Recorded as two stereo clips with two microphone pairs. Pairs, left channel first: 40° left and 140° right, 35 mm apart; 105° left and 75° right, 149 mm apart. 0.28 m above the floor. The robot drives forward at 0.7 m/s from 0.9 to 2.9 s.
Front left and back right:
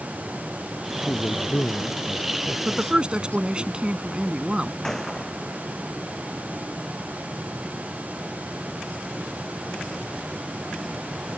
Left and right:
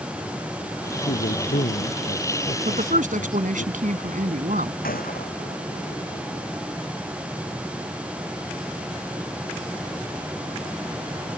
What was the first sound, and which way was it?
A man speaking, 85° left.